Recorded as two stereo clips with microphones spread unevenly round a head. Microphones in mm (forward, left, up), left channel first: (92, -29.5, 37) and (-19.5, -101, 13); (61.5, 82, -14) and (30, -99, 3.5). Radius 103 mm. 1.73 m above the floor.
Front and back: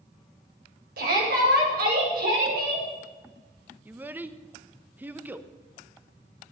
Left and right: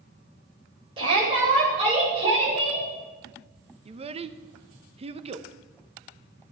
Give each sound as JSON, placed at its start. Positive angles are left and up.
{"t": 1.0, "sound": "a shout", "azimuth_deg": -165, "distance_m": 9.5}
{"t": 3.9, "sound": "a child speaking", "azimuth_deg": -65, "distance_m": 1.1}